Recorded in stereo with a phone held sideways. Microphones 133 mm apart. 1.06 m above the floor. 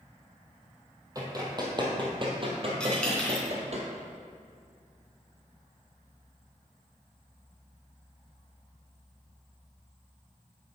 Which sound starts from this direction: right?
Running footsteps, at 1.1 s.